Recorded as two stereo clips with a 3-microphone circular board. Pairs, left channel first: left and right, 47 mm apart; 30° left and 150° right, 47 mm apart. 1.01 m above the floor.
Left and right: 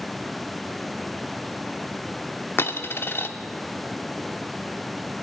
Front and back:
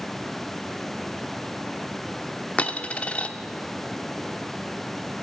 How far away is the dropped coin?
About 0.8 m.